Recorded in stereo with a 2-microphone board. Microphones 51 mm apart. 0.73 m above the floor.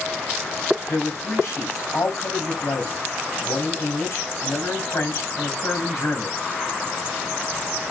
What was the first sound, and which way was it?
A man speaking, 60° left (ahead or behind).